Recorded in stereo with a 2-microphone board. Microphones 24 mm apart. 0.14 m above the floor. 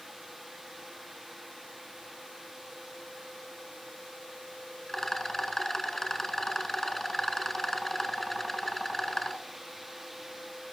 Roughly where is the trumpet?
No trumpet in this recording.